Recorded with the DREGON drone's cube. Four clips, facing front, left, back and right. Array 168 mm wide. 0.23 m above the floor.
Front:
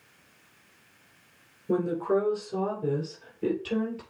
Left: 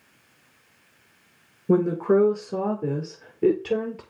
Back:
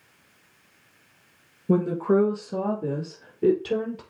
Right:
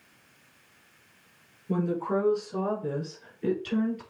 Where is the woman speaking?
115° left, 3 m; by 4.0 s 120° left, 5 m.